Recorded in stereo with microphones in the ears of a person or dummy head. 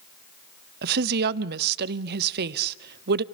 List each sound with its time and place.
0.8 s a woman speaking: 55° right (ahead or behind), 0.8 m